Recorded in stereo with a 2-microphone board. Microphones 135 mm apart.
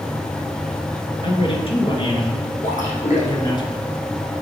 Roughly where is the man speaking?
Left.